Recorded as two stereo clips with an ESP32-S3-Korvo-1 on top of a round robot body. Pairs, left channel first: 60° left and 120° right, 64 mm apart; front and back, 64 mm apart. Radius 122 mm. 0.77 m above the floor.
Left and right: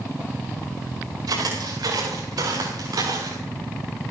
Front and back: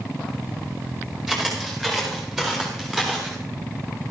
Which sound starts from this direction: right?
Footsteps, at 1.3 s.